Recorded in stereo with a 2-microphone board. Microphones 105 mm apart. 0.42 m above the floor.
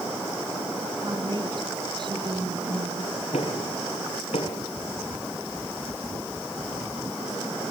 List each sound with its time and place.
1.0 s a woman speaking: 45° right (ahead or behind), 4.5 m
3.3 s knocking: 75° left (ahead or behind), 6.5 m